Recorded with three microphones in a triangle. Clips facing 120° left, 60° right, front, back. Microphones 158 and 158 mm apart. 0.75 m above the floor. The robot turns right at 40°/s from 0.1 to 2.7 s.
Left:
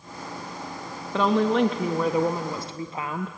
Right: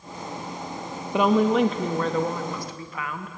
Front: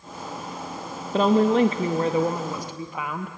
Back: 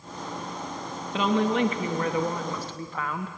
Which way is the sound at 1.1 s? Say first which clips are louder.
Right 2 dB, front 6 dB; 10° left.